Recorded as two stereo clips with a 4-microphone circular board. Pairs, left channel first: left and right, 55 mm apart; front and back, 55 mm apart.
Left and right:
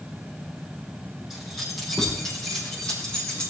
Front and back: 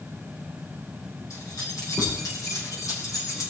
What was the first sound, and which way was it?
Keys jangling, 5° right.